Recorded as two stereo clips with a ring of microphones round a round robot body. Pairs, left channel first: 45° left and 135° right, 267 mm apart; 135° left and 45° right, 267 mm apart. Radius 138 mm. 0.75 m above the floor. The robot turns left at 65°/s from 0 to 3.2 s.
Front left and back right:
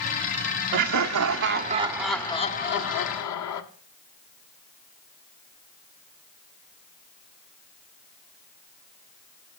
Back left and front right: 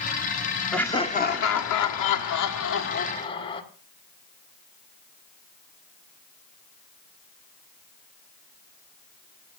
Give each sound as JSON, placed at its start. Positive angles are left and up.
{"t": 0.7, "sound": "laughter", "azimuth_deg": -135, "distance_m": 1.4}